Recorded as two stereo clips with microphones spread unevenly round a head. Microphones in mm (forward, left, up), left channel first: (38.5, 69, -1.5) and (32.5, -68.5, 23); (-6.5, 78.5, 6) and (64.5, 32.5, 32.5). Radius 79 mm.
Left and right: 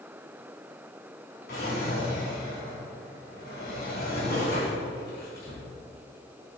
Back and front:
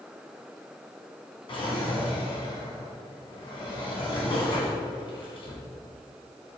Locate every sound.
1.5 s a drawer: 125° left, 4 m